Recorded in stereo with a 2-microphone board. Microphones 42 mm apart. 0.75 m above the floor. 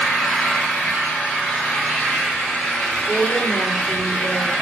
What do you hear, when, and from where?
0.0 s an engine running: 55° left (ahead or behind), 2.5 m
3.1 s a woman speaking: 65° left (ahead or behind), 2.5 m